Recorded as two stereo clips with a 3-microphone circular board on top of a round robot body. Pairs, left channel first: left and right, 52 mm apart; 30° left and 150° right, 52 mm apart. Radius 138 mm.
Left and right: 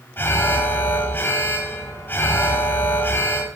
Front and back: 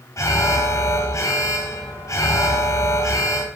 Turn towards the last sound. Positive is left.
turn(degrees=40)